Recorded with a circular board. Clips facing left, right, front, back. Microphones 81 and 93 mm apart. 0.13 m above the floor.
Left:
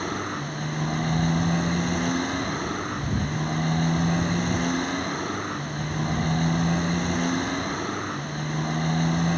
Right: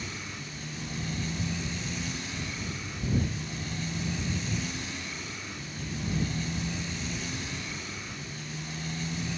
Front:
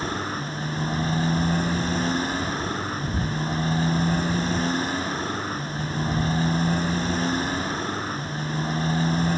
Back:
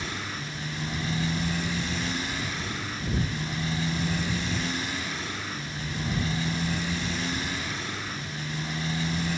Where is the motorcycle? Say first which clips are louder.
Left 11 dB, front 7 dB; 55° left.